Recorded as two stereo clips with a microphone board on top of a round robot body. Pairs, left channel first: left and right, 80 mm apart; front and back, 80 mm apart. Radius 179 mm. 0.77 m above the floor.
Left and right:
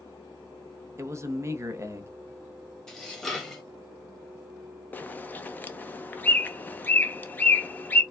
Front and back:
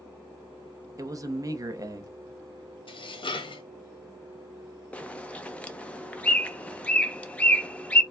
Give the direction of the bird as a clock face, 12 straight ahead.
10 o'clock.